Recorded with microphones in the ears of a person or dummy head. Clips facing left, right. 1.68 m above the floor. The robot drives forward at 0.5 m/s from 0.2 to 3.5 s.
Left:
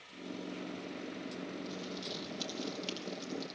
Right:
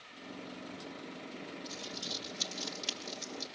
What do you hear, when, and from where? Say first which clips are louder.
1.6 s crumpling: left 3 dB; 25° right (ahead or behind), 2.5 m; by 3.5 s 20° right (ahead or behind), 3 m